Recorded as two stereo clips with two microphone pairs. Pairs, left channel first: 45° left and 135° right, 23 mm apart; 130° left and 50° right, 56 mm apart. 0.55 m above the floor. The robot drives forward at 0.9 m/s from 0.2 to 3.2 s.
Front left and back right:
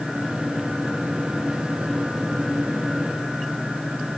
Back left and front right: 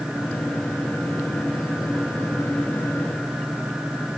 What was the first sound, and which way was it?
Only background noise.